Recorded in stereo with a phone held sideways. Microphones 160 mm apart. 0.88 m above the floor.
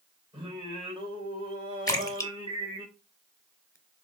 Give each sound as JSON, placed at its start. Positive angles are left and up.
{"t": 0.3, "sound": "singing", "side_deg": -30, "distance_m": 2.5}
{"t": 1.9, "sound": "a splash", "side_deg": 25, "distance_m": 0.8}